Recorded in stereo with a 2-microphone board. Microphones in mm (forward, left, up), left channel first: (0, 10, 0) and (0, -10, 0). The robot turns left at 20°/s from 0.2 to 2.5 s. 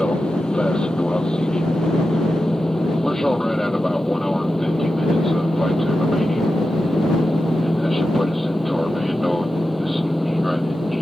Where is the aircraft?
65° left (ahead or behind); by 11.0 s centre (ahead or behind).